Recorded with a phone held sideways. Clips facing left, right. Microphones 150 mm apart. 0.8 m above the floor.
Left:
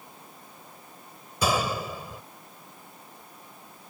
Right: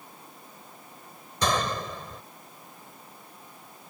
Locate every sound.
1.4 s a gunshot: 10° left (ahead or behind)